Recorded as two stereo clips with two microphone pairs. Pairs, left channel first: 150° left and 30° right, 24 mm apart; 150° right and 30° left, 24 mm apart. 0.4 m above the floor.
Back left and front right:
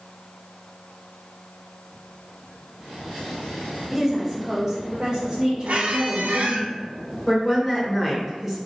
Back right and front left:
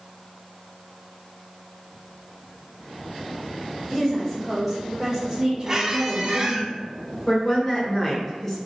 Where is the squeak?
40° right, 0.6 m.